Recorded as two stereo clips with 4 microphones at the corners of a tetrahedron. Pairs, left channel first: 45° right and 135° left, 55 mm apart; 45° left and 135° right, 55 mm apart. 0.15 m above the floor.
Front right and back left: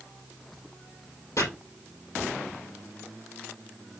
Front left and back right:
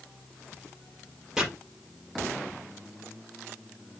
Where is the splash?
No splash in this recording.